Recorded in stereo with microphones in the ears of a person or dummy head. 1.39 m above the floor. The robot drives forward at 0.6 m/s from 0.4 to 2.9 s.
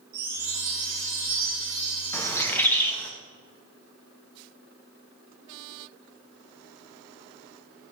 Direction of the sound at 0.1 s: 15° left (ahead or behind).